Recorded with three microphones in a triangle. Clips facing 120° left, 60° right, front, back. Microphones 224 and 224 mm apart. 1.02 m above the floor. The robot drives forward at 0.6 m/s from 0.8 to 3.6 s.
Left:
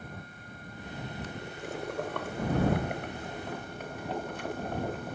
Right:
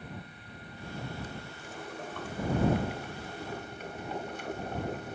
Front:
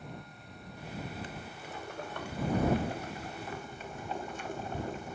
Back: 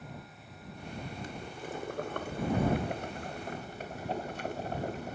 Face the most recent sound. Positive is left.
turn(degrees=155)